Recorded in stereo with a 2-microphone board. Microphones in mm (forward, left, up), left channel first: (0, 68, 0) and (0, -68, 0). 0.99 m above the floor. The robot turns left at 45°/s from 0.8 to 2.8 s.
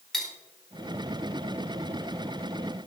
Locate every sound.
0.1 s cutlery clinking: 5° left (ahead or behind), 2 m